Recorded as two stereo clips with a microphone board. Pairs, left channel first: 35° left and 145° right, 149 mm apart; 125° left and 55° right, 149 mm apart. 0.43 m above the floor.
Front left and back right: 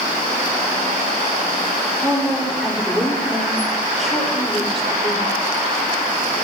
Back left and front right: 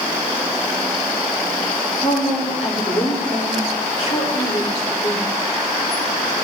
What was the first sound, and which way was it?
A woman speaking, 125° left.